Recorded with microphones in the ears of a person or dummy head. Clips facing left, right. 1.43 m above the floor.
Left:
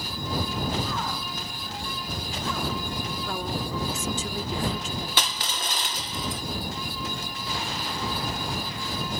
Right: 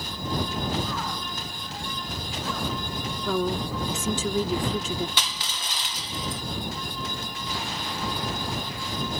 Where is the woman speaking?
65° right (ahead or behind).